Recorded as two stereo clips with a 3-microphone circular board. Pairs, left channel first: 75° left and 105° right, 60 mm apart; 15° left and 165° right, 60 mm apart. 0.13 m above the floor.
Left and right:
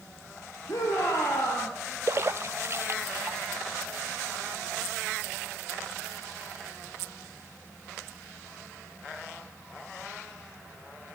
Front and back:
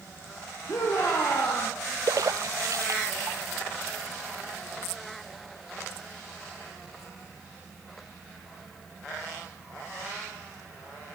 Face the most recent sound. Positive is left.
turn(degrees=-145)